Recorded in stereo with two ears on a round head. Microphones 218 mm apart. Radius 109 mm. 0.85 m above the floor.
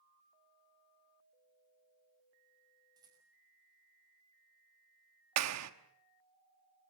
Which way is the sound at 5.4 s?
70° right (ahead or behind).